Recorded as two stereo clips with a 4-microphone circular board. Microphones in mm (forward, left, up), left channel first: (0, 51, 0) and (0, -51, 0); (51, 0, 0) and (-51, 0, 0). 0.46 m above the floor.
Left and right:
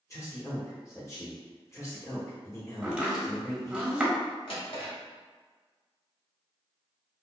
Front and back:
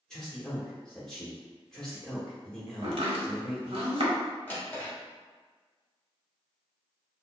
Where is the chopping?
170° right, 0.9 m.